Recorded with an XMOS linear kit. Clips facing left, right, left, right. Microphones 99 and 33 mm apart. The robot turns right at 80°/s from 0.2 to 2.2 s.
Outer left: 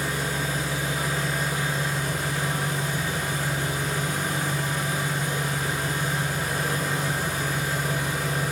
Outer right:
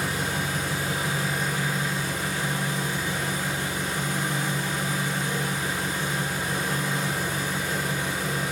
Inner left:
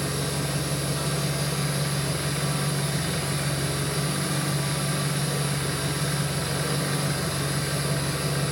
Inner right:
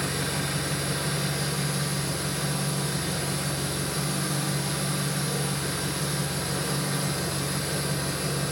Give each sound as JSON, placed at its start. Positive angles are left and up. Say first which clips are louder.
{"t": 0.0, "sound": "an engine running", "louder": "even, even", "azimuth_deg": -95, "distance_m": 1.8}